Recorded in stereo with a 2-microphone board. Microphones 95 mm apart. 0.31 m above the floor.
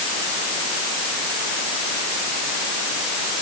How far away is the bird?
No bird in this recording.